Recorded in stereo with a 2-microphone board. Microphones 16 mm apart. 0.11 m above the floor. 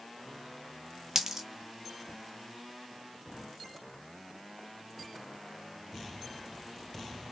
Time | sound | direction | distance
1.1 | a dropped coin | 35° right (ahead or behind) | 0.6 m